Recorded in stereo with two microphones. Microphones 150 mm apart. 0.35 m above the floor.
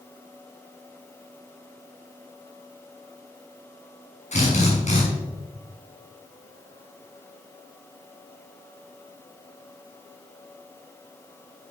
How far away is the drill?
About 4 m.